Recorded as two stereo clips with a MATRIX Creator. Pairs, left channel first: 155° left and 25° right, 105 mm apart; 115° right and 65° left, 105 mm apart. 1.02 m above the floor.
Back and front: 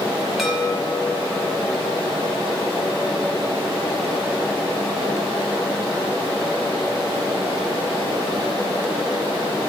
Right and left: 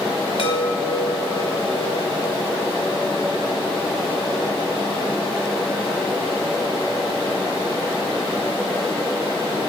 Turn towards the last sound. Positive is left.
turn(degrees=-110)